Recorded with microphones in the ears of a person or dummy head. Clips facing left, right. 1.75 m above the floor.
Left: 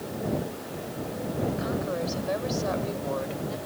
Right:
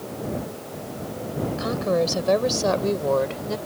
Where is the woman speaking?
70° right (ahead or behind).